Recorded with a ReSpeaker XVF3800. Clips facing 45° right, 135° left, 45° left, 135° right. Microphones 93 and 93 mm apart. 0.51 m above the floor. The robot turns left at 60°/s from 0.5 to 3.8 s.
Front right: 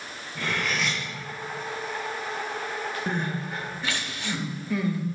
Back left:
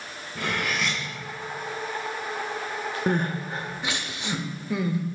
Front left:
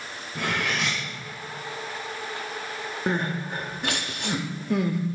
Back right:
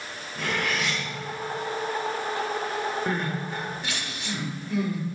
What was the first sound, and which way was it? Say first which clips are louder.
Cutlery clinking: even, even; 65° left.